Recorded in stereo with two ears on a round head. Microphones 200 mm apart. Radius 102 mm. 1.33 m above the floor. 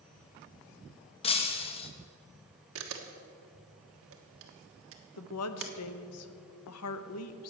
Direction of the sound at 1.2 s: 25° left (ahead or behind).